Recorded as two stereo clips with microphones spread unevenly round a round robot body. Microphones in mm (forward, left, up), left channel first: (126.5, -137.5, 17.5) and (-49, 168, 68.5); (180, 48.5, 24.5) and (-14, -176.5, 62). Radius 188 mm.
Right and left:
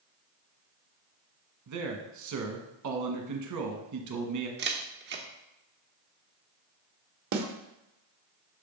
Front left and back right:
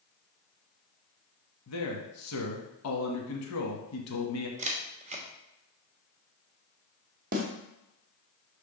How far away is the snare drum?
About 1.0 m.